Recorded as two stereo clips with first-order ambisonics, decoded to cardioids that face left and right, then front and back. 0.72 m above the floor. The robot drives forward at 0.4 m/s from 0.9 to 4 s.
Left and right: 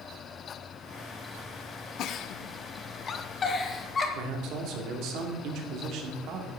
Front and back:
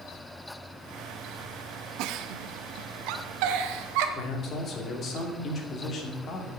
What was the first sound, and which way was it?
A giggle, 140° left.